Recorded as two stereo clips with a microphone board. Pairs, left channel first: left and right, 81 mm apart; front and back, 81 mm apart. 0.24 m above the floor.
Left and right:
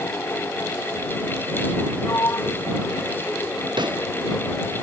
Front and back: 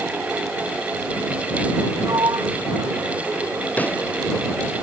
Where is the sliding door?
145° left.